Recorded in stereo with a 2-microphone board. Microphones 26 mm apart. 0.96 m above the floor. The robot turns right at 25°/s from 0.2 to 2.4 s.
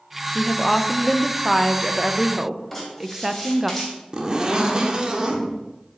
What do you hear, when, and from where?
0.3 s a woman speaking: 150° left, 0.5 m; by 3.7 s 160° right, 0.5 m
2.7 s writing: 10° left (ahead or behind), 3 m
4.1 s a zipper: 30° right (ahead or behind), 1.0 m